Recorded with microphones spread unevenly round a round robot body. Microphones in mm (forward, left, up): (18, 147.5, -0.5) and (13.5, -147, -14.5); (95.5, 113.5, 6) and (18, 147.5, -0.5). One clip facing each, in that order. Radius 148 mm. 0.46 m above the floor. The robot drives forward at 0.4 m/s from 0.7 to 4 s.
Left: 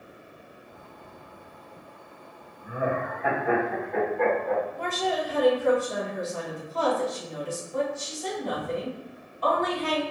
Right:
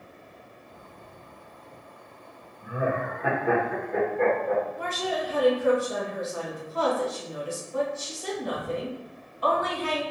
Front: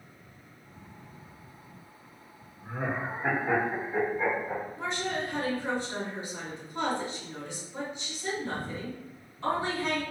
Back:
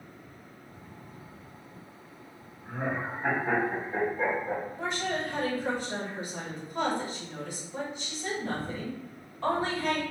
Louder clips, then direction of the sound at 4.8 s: Left 2 dB, back 1 dB; 170° right.